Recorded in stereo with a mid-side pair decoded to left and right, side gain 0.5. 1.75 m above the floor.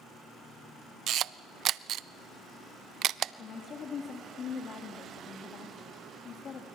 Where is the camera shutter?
60° right, 0.6 m.